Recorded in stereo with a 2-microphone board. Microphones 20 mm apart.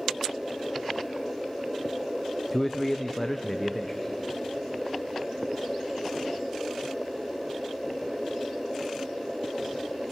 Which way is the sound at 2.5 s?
10° left (ahead or behind).